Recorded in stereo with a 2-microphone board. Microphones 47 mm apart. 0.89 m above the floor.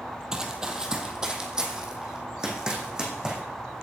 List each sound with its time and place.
0.3 s running footsteps: 15° right (ahead or behind), 1.8 m; by 3.4 s 20° right (ahead or behind), 3.5 m